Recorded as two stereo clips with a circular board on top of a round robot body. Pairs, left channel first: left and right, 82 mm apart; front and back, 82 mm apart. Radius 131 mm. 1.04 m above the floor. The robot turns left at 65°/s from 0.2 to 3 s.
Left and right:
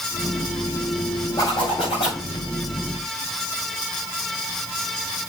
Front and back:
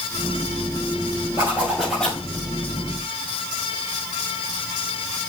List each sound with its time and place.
1.4 s a zipper: 125° left, 6.5 m; by 2.2 s 65° left, 6.5 m